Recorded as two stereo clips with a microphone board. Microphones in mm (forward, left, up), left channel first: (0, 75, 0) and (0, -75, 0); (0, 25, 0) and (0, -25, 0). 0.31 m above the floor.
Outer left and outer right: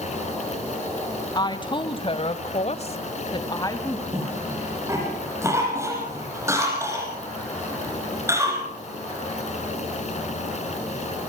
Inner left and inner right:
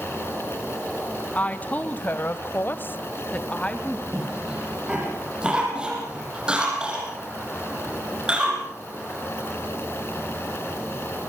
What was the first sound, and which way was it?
A woman speaking, 25° left (ahead or behind).